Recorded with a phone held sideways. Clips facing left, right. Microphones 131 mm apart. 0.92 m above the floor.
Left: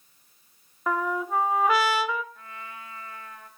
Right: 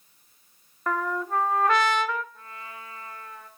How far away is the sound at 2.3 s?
About 3 m.